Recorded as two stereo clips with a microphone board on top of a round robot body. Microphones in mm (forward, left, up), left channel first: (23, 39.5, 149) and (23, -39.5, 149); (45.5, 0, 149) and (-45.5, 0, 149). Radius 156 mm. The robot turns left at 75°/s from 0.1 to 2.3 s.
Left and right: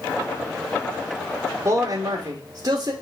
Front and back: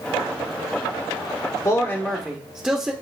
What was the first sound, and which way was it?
A man speaking, 55° right.